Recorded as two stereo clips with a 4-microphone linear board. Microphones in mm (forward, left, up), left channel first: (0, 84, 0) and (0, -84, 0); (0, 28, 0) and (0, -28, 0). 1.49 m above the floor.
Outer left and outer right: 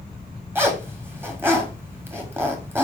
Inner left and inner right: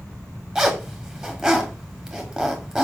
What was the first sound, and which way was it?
A zipper, 15° right (ahead or behind).